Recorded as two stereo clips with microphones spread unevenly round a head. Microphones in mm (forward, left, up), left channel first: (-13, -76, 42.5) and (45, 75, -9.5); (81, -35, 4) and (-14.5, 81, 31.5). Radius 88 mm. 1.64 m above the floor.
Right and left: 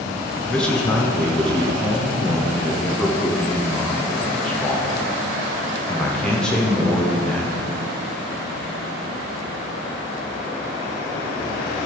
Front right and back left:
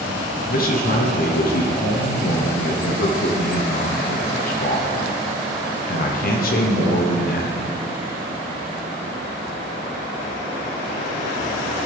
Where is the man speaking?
25° right, 0.9 m.